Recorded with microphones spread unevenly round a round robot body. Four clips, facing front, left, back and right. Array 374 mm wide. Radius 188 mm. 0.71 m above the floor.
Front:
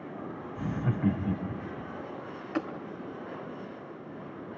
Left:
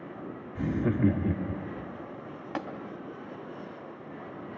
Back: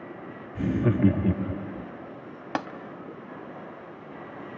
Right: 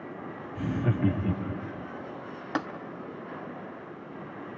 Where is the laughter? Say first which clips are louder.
Left 2 dB, back 9 dB; 170° left, 1.5 m.